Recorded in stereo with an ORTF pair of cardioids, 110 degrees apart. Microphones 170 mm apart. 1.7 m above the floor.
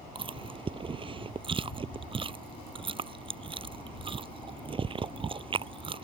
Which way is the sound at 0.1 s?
30° right.